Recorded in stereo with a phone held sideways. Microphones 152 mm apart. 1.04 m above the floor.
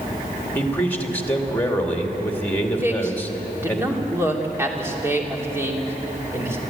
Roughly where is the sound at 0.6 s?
Centre.